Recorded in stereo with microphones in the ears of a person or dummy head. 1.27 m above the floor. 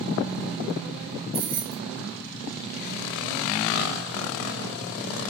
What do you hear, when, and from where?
1.3 s keys jangling: 20° right (ahead or behind), 0.6 m